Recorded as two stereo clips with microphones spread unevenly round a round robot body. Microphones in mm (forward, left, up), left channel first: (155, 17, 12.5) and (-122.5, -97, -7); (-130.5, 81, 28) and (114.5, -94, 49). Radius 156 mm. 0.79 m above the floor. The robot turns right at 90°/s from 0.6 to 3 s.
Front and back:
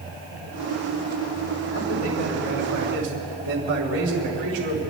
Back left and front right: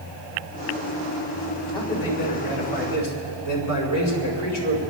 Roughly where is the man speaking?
Ahead left.